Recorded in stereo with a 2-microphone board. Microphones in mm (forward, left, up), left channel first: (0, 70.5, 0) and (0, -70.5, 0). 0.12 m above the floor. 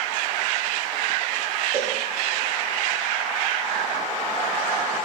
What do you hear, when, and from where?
1.7 s a cowbell: 50° right (ahead or behind), 1.1 m